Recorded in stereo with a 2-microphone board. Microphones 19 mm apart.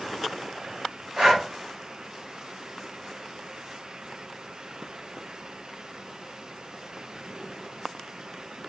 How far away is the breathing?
About 2 m.